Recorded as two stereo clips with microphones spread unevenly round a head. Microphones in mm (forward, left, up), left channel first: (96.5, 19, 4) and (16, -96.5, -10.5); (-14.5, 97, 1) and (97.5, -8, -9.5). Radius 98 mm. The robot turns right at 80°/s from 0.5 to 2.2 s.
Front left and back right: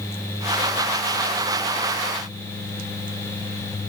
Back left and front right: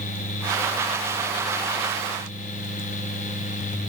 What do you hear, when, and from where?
Only background noise.